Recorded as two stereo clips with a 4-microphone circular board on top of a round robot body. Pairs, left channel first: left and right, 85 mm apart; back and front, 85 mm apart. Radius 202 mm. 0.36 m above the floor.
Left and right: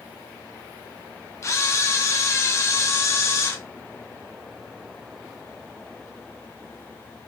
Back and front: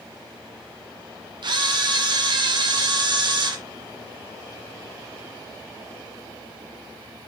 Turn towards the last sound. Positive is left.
turn(degrees=30)